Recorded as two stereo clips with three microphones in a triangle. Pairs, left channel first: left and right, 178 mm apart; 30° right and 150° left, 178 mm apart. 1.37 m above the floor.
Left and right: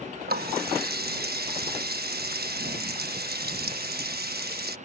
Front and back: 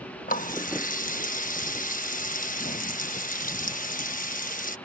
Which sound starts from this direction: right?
A running tap, at 0.3 s.